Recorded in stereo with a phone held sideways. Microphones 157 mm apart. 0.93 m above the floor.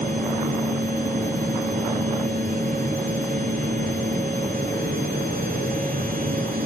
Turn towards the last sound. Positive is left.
turn(degrees=-70)  # may be behind; listen again after turning